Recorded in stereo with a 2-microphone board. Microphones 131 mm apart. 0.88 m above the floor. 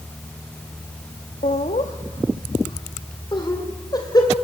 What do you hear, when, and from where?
1.4 s laughter: 70° left (ahead or behind), 1.0 m; by 4.3 s 30° left (ahead or behind), 3.5 m